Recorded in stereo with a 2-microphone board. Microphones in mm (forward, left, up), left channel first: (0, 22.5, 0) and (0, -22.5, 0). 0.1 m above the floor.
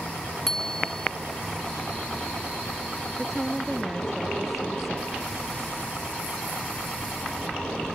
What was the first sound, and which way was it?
A bicycle bell, 10° left (ahead or behind).